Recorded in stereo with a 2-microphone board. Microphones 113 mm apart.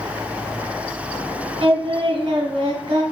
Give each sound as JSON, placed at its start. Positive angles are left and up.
{"t": 1.6, "sound": "singing", "side_deg": -45, "distance_m": 1.1}